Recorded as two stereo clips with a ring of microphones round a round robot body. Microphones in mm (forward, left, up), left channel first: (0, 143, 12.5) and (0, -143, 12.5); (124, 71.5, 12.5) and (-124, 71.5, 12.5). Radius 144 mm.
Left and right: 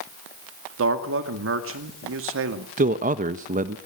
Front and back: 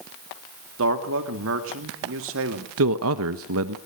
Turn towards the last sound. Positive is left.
turn(degrees=-150)